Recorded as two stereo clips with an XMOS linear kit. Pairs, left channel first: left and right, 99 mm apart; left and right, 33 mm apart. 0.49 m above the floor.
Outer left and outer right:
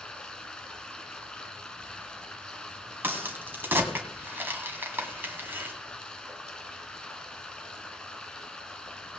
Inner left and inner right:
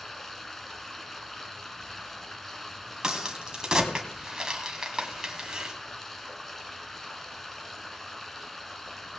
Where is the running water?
10° left (ahead or behind), 1.3 m.